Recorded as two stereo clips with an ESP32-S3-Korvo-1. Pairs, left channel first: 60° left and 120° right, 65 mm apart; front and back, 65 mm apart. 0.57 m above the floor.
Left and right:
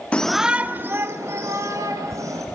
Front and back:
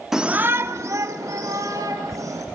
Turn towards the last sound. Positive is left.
turn(degrees=-155)